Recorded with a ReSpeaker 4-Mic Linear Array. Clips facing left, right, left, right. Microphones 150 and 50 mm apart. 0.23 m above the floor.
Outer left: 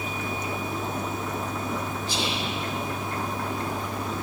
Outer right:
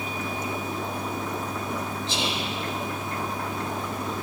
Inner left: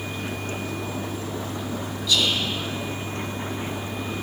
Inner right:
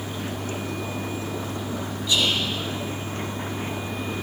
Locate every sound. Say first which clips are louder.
2.1 s whispering: even, even; 25° right (ahead or behind), 1.8 m